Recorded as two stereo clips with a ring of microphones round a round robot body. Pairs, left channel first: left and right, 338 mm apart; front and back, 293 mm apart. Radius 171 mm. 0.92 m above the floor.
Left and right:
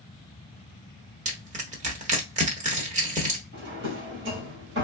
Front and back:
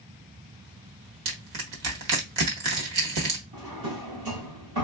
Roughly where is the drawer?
Behind right.